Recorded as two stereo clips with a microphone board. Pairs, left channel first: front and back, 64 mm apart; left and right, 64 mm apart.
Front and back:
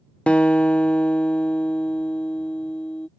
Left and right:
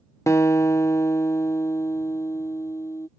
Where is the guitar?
70° left.